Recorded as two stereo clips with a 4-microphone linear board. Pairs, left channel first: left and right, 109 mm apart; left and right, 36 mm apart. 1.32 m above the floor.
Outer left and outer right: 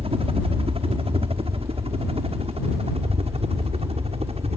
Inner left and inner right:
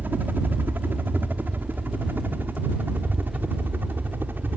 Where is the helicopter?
60° right (ahead or behind); by 4.6 s 65° right (ahead or behind).